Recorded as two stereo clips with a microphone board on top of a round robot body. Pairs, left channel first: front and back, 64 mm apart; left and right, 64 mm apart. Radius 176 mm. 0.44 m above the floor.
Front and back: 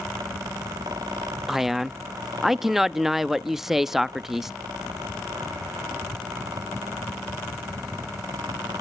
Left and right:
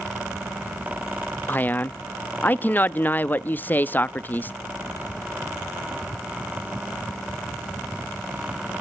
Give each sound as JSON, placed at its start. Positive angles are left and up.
{"t": 1.5, "sound": "a man speaking", "azimuth_deg": 100, "distance_m": 0.7}